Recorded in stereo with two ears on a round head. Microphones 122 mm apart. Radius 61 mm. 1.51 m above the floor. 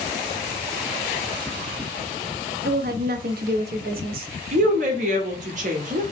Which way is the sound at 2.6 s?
75° right (ahead or behind).